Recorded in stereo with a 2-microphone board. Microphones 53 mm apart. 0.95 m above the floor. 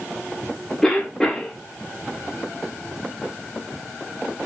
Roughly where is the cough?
Centre.